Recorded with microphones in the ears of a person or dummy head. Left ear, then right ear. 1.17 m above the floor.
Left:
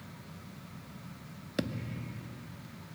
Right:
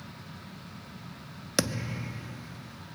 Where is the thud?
40° right (ahead or behind).